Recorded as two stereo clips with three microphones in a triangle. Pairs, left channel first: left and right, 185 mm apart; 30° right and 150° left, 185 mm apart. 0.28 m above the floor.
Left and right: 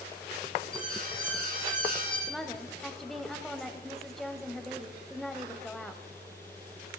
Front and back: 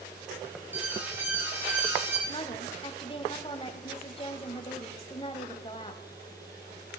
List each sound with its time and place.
0.7 s an alarm: 130° right, 4.5 m
2.3 s a woman speaking: 5° left, 1.1 m